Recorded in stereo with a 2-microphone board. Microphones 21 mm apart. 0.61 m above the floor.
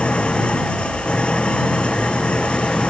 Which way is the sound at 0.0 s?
55° left (ahead or behind).